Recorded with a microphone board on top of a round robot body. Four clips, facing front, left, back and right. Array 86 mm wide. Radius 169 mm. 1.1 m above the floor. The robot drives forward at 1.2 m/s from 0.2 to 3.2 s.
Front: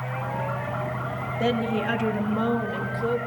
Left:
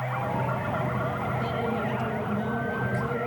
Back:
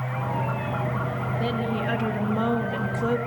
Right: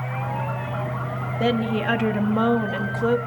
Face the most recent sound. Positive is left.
turn(degrees=-110)